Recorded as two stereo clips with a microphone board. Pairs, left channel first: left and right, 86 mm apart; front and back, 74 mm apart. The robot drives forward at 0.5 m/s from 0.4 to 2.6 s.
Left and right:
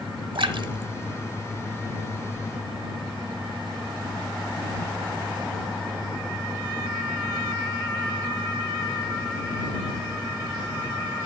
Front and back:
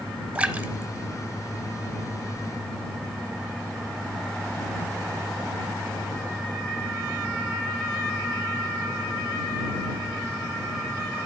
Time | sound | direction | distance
0.3 | a splash | 105° right | 1.1 m